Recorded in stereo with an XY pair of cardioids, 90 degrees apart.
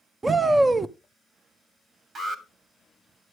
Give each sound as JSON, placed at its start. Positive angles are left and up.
{"t": 0.2, "sound": "a shout", "azimuth_deg": -25, "distance_m": 0.7}
{"t": 2.1, "sound": "an alarm", "azimuth_deg": -50, "distance_m": 3.0}